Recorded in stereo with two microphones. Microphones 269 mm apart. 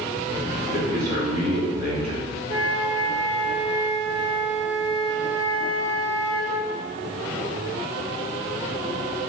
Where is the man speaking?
35° left (ahead or behind), 1.4 m.